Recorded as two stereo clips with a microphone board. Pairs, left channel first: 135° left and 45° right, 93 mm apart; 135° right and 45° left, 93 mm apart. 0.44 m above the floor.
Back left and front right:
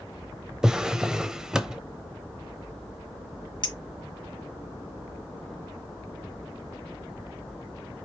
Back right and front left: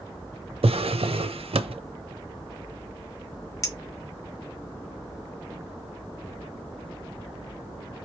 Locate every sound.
0.6 s a drawer: 40° left, 0.6 m
3.6 s a clink: 170° left, 1.0 m